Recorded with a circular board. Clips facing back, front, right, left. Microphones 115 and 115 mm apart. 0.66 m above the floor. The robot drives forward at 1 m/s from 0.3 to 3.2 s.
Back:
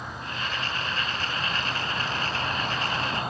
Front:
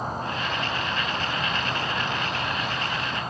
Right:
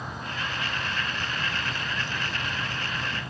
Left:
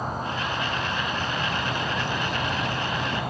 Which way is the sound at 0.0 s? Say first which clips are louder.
Front 6 dB, left 6 dB; 45° left.